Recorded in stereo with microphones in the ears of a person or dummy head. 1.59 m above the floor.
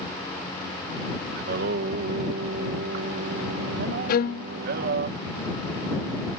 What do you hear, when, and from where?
1.4 s singing: 55° right (ahead or behind)
4.1 s a violin: 45° left (ahead or behind)